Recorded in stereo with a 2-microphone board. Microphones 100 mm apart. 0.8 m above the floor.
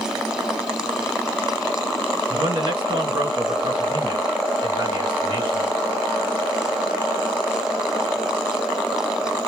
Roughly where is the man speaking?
Right.